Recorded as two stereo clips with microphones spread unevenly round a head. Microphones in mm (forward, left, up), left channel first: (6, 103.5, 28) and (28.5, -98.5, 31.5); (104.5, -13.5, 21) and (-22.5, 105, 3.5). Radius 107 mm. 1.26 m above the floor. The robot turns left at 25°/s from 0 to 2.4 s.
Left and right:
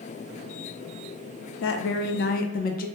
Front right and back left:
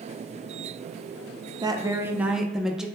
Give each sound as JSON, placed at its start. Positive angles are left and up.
{"t": 1.6, "sound": "a woman speaking", "azimuth_deg": 70, "distance_m": 0.5}